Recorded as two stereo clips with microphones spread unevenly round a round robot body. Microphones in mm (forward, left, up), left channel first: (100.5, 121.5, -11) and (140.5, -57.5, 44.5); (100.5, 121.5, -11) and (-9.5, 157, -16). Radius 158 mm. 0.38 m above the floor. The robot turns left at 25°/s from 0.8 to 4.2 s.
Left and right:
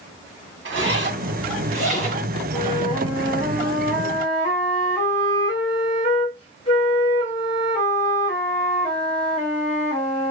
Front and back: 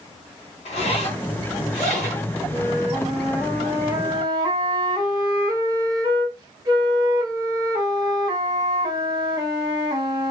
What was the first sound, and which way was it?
A zipper, 65° right.